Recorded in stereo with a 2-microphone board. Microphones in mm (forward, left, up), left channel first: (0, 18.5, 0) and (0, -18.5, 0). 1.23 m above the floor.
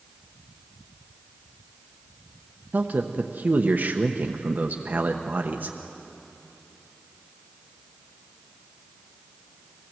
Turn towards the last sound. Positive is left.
turn(degrees=-55)  # may be behind; listen again after turning